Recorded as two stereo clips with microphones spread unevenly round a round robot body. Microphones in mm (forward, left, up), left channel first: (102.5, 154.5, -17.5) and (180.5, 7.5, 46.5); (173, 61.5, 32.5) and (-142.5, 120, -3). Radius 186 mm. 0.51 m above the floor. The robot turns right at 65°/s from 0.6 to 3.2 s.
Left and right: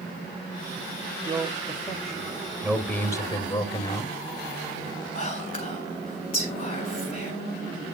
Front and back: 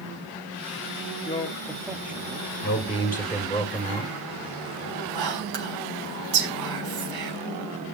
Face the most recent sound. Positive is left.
turn(degrees=165)